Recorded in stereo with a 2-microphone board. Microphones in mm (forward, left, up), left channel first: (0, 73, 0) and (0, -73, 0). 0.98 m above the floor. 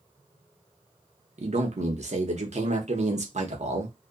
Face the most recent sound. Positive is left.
turn(degrees=-55)  # may be behind; listen again after turning